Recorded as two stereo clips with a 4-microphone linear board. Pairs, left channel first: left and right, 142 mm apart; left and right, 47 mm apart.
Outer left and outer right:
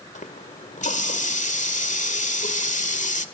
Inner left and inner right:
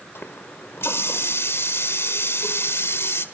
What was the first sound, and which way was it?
A running tap, 70° left (ahead or behind).